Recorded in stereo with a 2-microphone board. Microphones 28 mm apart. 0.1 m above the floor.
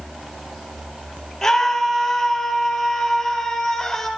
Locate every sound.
1.4 s a scream: 10° left (ahead or behind), 3 m